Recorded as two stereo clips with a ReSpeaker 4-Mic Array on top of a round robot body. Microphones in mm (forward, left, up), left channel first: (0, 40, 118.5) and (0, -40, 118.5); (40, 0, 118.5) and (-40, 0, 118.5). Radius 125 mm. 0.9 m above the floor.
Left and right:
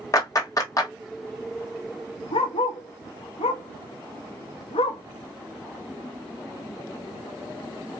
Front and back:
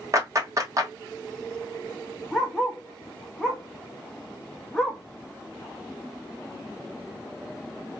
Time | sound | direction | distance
0.1 | a clap | 135° left | 1.2 m
2.3 | a dog barking | 90° left | 0.6 m